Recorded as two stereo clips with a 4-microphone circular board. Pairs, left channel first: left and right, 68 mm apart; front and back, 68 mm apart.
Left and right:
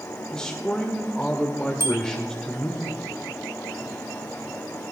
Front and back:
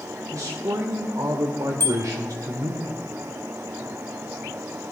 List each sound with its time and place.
0.3 s a man speaking: 165° left, 1.8 m
1.8 s a bicycle bell: 45° right, 3 m